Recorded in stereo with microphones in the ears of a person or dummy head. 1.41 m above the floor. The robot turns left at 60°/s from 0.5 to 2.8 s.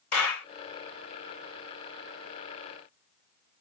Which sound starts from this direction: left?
A clap, at 0.1 s.